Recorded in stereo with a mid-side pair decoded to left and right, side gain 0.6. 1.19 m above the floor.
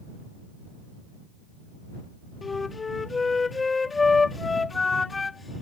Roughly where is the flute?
Ahead.